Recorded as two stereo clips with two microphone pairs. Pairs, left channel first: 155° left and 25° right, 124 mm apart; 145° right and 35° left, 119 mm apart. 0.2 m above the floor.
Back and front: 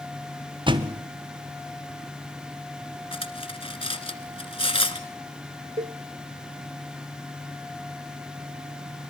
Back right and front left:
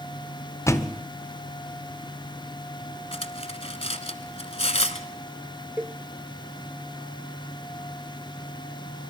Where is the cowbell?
40° right, 0.7 m.